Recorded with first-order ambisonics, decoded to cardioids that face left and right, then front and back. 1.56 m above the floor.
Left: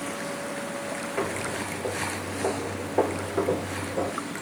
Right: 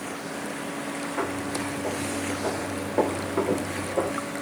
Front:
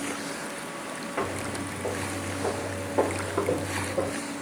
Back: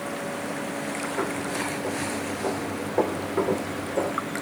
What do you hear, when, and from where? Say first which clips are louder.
1.2 s footsteps: even, back 1 dB; 40° left, 1.8 m; by 4.1 s 135° right, 1.9 m